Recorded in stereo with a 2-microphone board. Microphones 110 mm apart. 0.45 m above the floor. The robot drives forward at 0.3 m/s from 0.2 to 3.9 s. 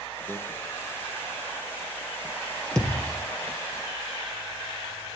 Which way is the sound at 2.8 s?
5° left (ahead or behind).